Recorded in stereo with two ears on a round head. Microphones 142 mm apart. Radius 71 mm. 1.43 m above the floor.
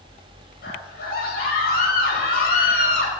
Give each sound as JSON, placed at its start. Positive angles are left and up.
{"t": 0.6, "sound": "a scream", "side_deg": 65, "distance_m": 6.5}